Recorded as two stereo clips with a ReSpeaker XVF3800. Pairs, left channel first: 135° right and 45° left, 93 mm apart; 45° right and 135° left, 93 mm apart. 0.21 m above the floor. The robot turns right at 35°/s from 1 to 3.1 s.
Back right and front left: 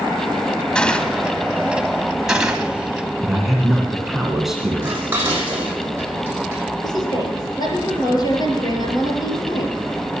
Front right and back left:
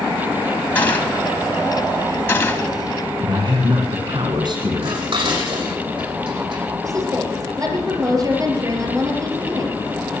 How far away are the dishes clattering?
About 6 m.